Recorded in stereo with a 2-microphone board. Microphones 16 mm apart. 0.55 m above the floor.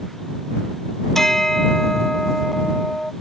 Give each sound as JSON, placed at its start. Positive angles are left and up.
{"t": 1.1, "sound": "a bell", "side_deg": 25}